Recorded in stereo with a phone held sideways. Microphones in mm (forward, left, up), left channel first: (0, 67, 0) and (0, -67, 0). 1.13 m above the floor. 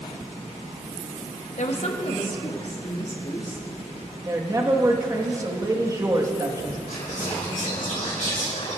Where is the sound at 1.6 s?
60° left (ahead or behind), 0.8 m; by 3.7 s 35° left (ahead or behind), 3 m.